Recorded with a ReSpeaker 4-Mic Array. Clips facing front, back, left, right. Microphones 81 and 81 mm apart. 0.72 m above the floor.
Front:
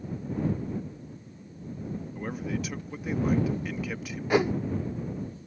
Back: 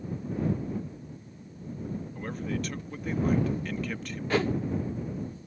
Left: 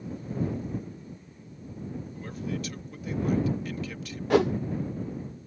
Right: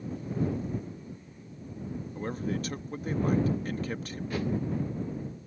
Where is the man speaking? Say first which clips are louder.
Front 1 dB, right 3 dB; 80° right.